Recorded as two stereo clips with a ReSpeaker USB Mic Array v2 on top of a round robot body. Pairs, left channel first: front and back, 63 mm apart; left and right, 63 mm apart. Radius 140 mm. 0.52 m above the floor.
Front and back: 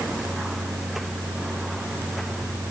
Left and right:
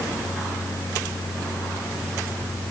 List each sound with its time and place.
Only background noise.